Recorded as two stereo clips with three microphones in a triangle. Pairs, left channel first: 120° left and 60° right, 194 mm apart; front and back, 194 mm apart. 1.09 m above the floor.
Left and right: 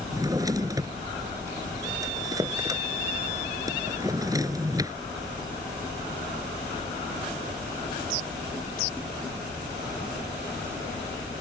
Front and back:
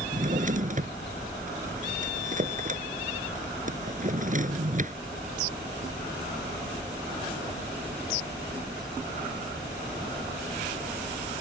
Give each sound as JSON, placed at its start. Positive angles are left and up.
{"t": 0.1, "sound": "a drawer", "azimuth_deg": -130}